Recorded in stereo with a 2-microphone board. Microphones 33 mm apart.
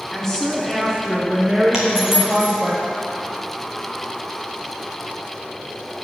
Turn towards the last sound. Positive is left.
turn(degrees=-15)  # may be behind; listen again after turning